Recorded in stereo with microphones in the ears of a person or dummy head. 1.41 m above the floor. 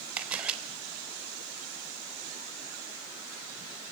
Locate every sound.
0.2 s a camera shutter: centre (ahead or behind), 3 m